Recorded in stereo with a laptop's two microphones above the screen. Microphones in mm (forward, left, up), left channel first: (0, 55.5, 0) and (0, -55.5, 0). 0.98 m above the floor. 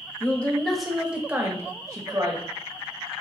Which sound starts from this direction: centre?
A woman speaking, at 0.2 s.